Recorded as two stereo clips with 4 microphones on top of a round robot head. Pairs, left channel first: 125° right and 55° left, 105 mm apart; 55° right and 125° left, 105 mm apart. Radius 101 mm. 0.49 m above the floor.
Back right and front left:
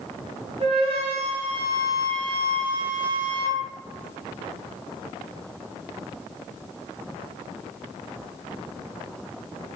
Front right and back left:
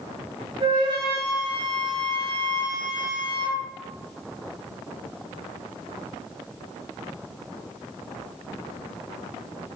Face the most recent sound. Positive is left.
turn(degrees=85)